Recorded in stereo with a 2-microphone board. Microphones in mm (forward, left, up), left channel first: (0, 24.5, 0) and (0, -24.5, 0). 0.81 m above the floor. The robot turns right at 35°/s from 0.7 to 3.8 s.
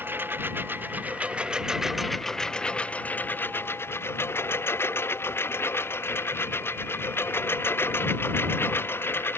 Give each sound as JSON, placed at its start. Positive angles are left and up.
{"t": 0.0, "sound": "a lawn mower", "side_deg": -45}